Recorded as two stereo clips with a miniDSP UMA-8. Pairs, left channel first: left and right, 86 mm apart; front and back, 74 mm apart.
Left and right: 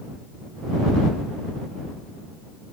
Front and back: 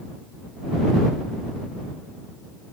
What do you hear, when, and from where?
Only background noise.